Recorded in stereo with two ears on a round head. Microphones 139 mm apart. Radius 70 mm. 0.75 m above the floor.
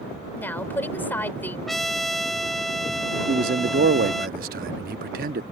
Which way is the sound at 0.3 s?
10° left (ahead or behind).